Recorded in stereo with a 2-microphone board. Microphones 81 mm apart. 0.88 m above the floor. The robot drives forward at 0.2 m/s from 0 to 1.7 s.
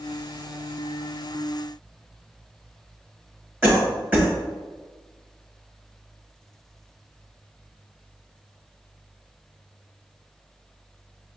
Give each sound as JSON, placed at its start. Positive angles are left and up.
{"t": 3.6, "sound": "a cough", "side_deg": -20, "distance_m": 1.0}